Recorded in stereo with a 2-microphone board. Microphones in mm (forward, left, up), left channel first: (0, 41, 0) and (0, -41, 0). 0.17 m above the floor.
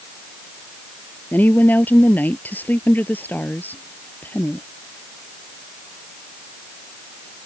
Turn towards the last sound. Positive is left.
turn(degrees=20)  # may be behind; listen again after turning